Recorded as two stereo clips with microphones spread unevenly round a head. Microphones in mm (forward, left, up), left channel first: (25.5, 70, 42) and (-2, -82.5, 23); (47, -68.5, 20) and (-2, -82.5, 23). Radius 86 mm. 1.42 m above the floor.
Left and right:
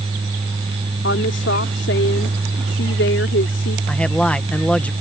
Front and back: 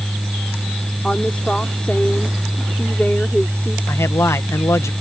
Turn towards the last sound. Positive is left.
turn(degrees=-5)